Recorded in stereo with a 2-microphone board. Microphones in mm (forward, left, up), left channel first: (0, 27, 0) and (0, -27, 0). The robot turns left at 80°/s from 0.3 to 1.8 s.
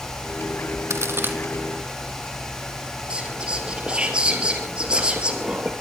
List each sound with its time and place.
0.9 s a crack: 65° right (ahead or behind), 2 m; by 1.4 s 35° right (ahead or behind), 2 m
3.1 s whispering: 20° right (ahead or behind), 2.5 m